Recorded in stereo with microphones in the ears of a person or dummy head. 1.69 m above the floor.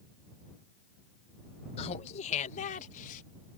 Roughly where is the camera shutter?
No camera shutter in this recording.